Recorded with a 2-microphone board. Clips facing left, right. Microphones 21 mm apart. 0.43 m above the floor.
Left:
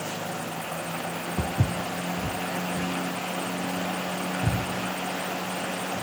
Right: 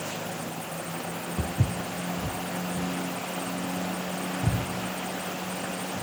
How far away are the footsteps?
About 0.6 m.